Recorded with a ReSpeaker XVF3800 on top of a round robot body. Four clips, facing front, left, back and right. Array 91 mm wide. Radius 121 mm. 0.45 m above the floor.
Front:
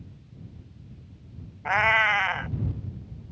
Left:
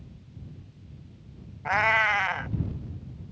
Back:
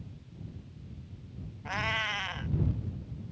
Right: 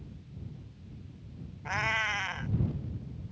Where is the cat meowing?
35° left.